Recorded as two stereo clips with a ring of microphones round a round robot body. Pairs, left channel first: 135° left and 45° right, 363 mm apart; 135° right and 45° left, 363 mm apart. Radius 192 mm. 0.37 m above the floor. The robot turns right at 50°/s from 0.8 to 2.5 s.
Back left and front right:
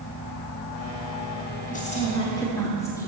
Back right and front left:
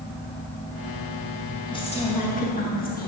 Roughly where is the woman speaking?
Behind.